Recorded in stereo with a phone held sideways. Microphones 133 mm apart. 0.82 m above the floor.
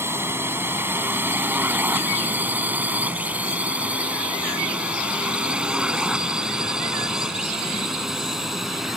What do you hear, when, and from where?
0.0 s a drone: 15° right (ahead or behind); by 9.0 s centre (ahead or behind)